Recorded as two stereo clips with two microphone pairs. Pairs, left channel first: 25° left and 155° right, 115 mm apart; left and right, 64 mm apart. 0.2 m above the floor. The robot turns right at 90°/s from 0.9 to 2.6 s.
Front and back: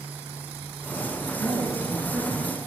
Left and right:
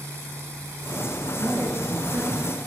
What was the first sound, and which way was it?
A woman speaking, 135° right.